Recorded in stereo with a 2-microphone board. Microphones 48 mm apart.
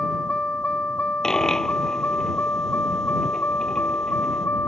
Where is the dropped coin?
10° left (ahead or behind).